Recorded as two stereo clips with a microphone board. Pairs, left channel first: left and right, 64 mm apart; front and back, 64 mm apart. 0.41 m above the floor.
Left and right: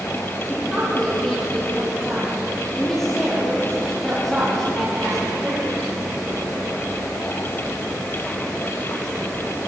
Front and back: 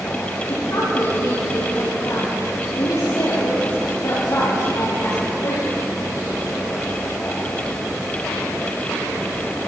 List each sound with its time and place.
0.5 s a woman speaking: 5° left, 8 m